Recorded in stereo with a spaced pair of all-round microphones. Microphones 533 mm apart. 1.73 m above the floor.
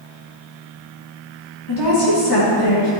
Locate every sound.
1.7 s a woman speaking: 45° left (ahead or behind), 3 m